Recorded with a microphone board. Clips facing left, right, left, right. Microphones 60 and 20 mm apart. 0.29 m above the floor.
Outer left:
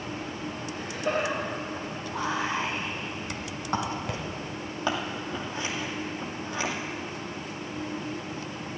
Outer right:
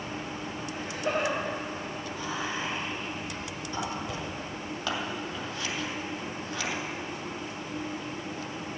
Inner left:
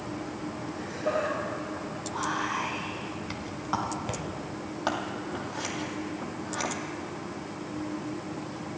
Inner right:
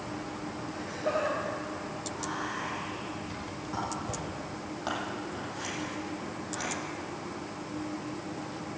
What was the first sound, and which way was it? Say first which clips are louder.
Laughter: outer left 1 dB, inner left 1 dB; 15° right (ahead or behind).